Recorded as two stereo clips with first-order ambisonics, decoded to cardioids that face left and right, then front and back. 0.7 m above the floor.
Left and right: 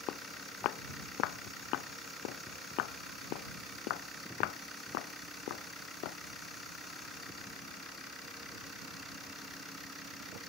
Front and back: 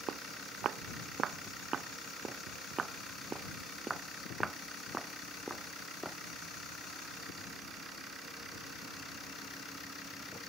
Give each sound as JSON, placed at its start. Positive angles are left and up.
{"t": 0.1, "sound": "footsteps", "azimuth_deg": 130}